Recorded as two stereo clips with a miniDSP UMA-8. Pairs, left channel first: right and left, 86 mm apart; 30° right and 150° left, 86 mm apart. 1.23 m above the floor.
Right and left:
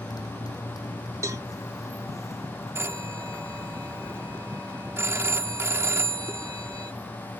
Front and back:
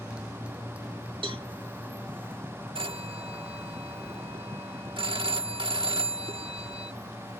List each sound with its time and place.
0.0 s a motorcycle: 130° right; by 7.4 s 160° right
1.2 s a cowbell: 145° left
2.8 s a phone ringing: 150° left